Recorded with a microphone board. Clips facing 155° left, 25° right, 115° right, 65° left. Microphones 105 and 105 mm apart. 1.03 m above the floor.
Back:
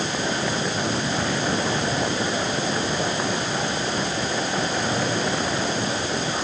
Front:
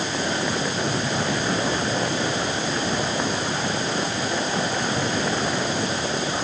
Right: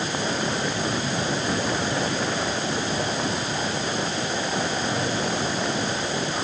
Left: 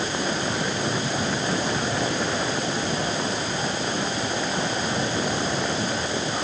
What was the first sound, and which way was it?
Only background noise.